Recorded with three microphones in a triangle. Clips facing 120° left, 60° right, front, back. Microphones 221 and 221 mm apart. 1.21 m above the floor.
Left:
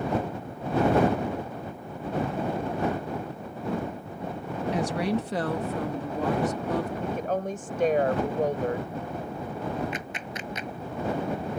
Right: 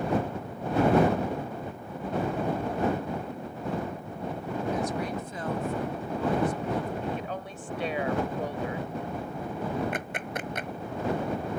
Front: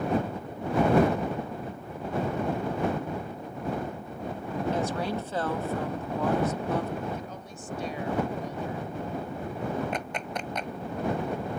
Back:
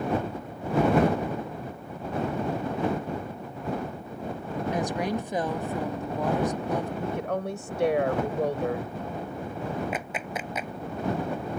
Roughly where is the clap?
Right.